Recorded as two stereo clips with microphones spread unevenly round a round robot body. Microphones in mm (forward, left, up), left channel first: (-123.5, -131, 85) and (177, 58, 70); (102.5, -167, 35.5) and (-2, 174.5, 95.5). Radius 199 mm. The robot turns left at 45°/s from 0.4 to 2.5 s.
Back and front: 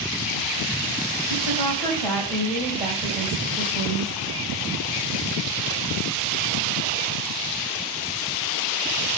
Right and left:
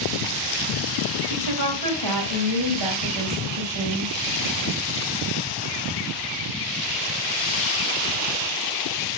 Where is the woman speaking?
160° left, 3 m; by 4.1 s 105° left, 3 m.